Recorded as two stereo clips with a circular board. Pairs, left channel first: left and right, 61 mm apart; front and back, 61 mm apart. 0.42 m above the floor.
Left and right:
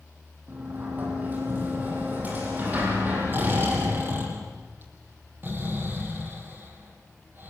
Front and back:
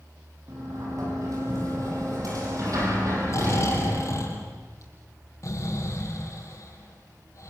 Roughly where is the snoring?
Ahead right.